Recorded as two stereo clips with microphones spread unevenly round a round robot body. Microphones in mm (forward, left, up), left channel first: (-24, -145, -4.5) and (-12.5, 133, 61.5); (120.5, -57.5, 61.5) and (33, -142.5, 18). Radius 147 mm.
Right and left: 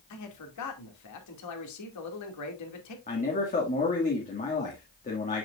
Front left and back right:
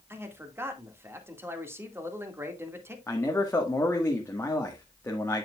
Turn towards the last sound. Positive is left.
turn(degrees=-35)